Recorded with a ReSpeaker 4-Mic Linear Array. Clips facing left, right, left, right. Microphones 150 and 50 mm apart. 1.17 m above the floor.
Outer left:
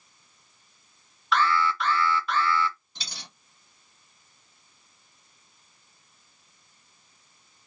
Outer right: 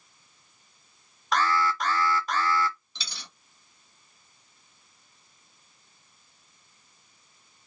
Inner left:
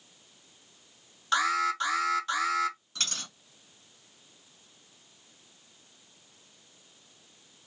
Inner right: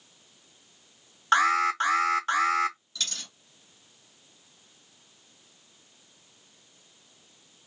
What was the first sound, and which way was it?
An alarm, 40° right (ahead or behind).